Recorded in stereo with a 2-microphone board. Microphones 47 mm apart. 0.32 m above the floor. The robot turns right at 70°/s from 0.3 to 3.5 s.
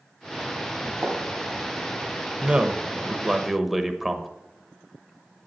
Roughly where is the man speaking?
Right.